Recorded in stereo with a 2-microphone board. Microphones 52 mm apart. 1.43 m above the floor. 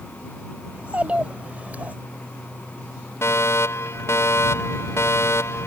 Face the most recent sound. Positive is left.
turn(degrees=60)  # may be behind; listen again after turning